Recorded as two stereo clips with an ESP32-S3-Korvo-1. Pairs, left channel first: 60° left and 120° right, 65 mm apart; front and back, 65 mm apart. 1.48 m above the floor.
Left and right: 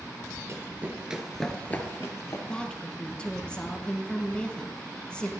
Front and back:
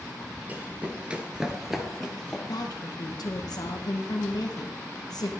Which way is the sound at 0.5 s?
125° right.